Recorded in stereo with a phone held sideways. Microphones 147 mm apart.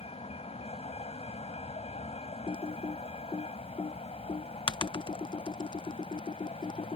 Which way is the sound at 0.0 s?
45° left (ahead or behind).